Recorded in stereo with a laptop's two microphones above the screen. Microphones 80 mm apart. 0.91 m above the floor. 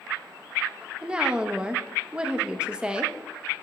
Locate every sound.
1.0 s a woman speaking: 15° right (ahead or behind), 0.6 m